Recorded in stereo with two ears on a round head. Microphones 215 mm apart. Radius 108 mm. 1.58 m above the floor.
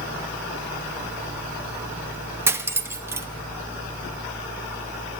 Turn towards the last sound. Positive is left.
turn(degrees=-10)  # may be behind; listen again after turning